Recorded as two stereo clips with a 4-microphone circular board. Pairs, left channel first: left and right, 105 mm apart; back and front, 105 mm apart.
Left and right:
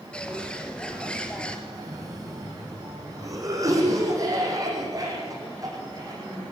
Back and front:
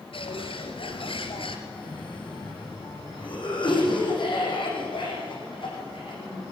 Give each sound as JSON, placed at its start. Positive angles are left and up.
{"t": 0.1, "sound": "a bird", "azimuth_deg": 170, "distance_m": 2.0}
{"t": 1.7, "sound": "a cough", "azimuth_deg": -145, "distance_m": 7.0}